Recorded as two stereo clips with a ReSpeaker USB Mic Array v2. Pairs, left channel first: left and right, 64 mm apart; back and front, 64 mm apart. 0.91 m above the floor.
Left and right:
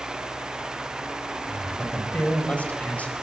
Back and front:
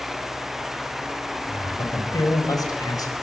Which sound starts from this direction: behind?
A man speaking, at 1.5 s.